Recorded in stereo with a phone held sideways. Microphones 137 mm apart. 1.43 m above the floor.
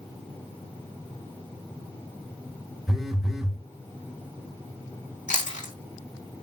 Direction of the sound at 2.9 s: Centre (ahead or behind).